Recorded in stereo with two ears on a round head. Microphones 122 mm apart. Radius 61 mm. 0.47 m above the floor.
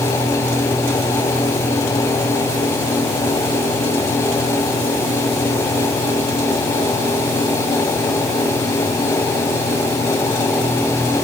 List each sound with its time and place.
Only background noise.